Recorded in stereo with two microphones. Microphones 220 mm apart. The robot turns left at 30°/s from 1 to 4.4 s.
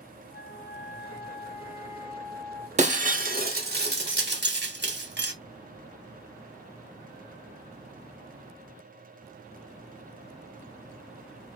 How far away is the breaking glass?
About 0.8 m.